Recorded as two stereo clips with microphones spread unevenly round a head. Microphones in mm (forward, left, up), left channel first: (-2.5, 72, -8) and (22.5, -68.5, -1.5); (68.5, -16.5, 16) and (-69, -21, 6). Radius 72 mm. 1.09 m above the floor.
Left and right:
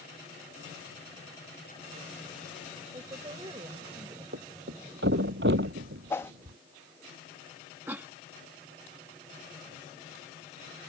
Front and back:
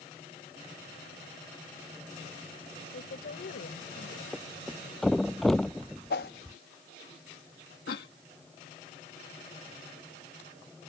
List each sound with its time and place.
2.9 s a woman speaking: 20° right
4.3 s a thud: 85° right
6.1 s a whoosh: 25° left
7.9 s a cough: 5° right